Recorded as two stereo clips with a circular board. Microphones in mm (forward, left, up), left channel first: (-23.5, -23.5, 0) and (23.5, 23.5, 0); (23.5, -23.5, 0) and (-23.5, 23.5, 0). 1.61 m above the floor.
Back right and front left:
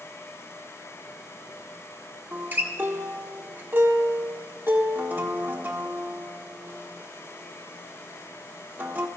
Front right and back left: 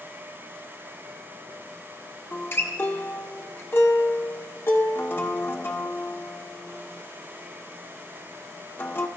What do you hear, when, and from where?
2.3 s a guitar: 5° right, 1.5 m